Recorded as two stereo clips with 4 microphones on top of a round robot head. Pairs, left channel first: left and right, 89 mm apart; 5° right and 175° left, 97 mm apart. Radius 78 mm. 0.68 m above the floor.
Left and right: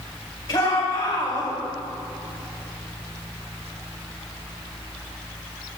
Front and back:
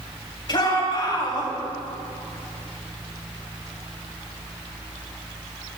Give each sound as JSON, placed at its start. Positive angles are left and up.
{"t": 0.5, "sound": "a shout", "azimuth_deg": 35, "distance_m": 4.0}